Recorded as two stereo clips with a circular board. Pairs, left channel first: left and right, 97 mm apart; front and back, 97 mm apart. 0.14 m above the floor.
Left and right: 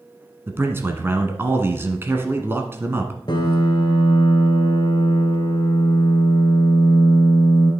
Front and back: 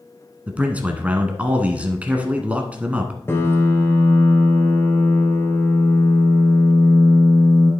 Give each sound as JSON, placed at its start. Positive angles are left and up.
{"t": 0.5, "sound": "a man speaking", "azimuth_deg": -120, "distance_m": 1.1}
{"t": 3.3, "sound": "a piano", "azimuth_deg": 65, "distance_m": 1.8}